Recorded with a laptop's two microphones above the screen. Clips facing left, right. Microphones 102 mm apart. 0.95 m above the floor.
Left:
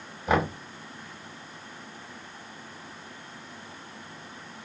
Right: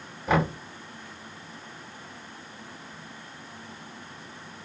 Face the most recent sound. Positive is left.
turn(degrees=5)  # may be behind; listen again after turning